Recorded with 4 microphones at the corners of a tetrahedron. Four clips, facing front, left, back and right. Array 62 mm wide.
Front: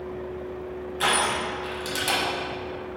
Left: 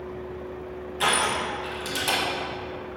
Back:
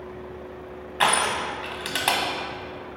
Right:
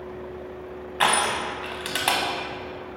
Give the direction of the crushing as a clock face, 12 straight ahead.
4 o'clock.